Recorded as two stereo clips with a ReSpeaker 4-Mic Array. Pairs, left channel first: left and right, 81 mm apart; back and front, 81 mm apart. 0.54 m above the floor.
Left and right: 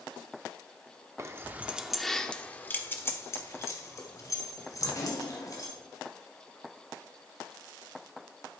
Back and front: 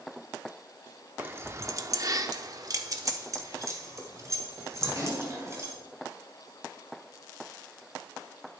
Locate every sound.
1.2 s keys jangling: 55° right, 0.7 m; by 5.7 s 50° left, 2.5 m